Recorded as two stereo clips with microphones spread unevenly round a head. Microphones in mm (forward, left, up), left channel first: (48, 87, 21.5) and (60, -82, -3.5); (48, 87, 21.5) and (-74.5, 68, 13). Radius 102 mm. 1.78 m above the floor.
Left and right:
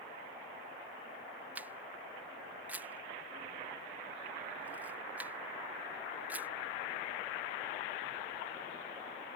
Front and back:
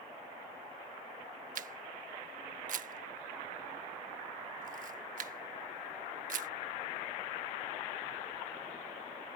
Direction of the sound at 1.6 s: 170° right.